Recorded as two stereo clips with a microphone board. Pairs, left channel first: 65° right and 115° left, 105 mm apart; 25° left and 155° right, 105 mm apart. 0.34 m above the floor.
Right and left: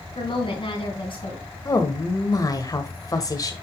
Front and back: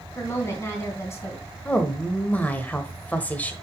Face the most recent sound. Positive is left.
turn(degrees=-45)